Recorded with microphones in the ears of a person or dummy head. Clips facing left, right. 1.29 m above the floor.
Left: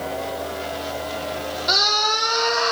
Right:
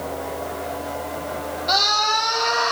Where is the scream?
35° left (ahead or behind), 1.6 m; by 2.7 s 65° left (ahead or behind), 1.8 m.